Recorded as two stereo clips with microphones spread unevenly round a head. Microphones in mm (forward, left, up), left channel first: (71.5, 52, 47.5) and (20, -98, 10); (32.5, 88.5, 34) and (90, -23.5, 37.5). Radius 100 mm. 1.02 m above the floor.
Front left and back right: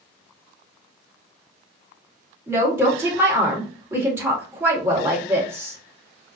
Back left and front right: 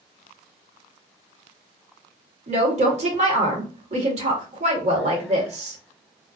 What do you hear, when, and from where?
2.5 s a woman speaking: 35° right, 2.5 m